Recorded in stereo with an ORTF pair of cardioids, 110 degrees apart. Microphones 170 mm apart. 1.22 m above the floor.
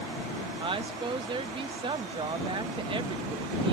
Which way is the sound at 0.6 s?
30° right.